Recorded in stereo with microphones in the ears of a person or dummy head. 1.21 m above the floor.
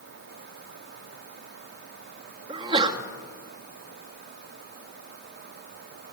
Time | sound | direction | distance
2.5 | a sneeze | 25° right (ahead or behind) | 2.5 m